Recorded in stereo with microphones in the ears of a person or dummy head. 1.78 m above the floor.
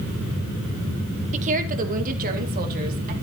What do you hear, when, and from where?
1.3 s a woman speaking: 40° right (ahead or behind), 1.7 m; by 3.1 s 50° right (ahead or behind), 4 m